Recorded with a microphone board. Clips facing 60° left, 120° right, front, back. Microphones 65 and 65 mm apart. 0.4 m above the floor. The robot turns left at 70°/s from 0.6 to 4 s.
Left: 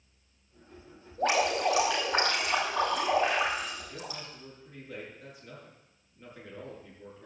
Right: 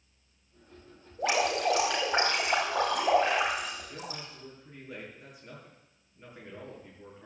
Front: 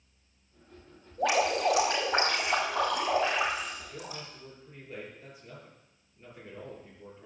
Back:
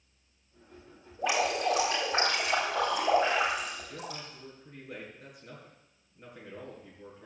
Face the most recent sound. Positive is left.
turn(degrees=160)